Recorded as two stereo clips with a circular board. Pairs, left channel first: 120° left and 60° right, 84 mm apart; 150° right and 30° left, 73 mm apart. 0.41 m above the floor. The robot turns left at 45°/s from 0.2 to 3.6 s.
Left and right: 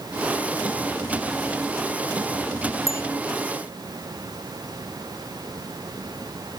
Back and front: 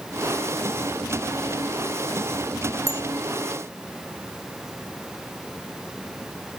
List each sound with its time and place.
2.9 s a bicycle bell: 65° left; by 3.0 s 60° left